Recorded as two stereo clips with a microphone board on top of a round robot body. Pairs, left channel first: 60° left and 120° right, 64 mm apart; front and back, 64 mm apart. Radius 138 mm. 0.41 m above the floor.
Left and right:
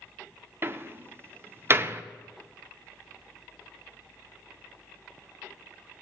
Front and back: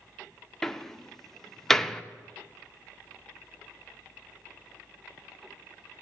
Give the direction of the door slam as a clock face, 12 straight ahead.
3 o'clock.